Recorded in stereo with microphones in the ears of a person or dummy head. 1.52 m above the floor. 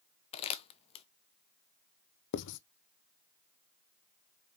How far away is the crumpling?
About 0.6 m.